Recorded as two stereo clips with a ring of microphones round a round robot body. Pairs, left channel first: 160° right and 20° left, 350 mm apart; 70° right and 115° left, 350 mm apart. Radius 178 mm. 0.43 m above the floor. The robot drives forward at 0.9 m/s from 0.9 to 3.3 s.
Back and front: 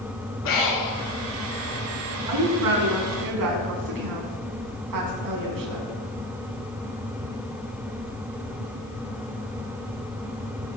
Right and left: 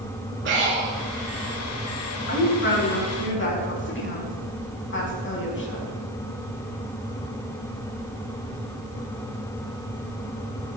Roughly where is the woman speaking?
Ahead.